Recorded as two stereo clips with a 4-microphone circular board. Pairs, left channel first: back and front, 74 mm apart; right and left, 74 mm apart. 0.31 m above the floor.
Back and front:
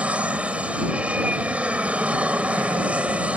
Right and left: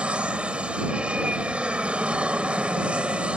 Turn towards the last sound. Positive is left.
turn(degrees=40)